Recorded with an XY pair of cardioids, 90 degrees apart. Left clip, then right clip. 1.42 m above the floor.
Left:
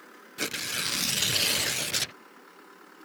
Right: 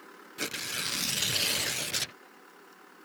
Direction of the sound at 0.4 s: 25° left.